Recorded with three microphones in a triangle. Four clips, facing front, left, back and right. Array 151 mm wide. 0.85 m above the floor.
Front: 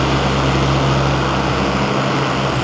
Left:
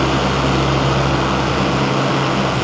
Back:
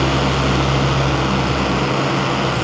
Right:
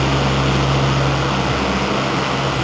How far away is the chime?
I don't hear a chime.